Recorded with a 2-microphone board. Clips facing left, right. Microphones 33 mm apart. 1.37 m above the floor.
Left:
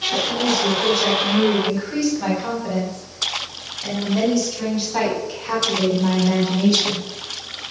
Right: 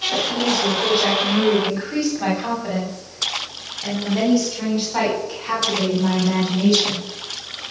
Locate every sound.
0.1 s a woman speaking: 35° right (ahead or behind), 8.5 m; by 7.0 s centre (ahead or behind), 13.5 m